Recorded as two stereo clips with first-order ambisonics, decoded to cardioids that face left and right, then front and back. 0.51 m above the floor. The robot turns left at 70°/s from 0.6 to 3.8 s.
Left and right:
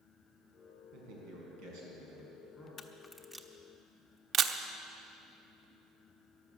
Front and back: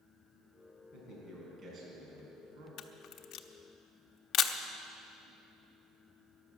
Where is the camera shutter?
30° left, 0.7 m; by 4.5 s 40° right, 0.7 m.